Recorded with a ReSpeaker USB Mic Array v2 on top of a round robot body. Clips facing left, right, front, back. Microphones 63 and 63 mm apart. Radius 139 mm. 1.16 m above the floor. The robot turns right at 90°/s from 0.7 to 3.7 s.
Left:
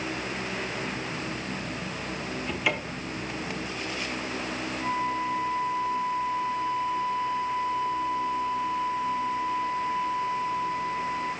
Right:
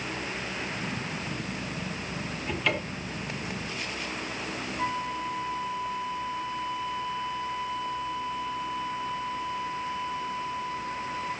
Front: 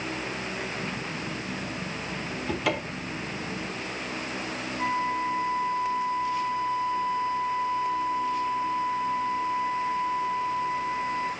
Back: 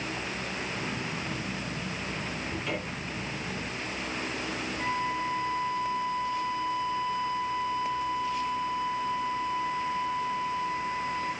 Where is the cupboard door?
10° right, 1.3 m; by 3.2 s 55° left, 1.3 m.